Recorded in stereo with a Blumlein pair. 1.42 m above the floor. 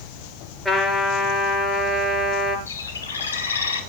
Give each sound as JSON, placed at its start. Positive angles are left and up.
{"t": 0.7, "sound": "a trumpet", "azimuth_deg": 10, "distance_m": 7.5}
{"t": 2.7, "sound": "a bird", "azimuth_deg": 70, "distance_m": 2.5}